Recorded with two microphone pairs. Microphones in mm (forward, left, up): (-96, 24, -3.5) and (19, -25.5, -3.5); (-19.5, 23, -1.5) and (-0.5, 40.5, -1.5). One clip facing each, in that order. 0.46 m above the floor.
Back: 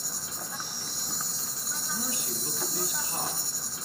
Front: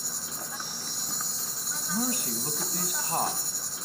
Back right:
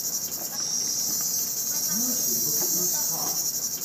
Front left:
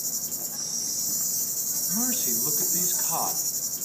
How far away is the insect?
About 0.8 m.